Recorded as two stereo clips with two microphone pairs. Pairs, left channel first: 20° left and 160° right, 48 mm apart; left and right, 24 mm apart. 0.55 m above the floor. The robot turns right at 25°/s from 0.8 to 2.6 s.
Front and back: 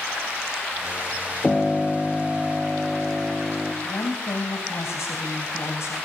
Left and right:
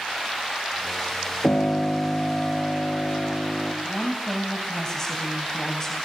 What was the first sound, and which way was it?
A piano, 100° left.